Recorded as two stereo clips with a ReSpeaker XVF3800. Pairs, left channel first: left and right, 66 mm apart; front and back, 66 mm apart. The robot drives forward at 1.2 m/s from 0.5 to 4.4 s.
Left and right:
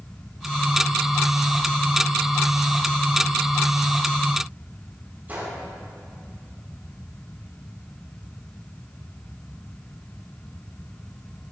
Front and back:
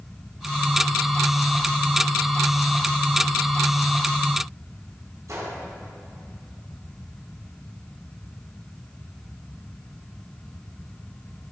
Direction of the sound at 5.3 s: 150° right.